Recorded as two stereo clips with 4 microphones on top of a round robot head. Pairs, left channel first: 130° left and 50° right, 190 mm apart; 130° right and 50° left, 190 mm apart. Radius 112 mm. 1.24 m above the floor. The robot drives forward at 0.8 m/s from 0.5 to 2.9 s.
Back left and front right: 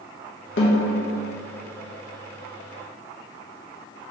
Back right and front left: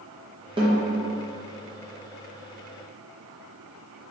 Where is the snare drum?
115° left, 0.6 m; by 1.0 s 140° left, 0.8 m.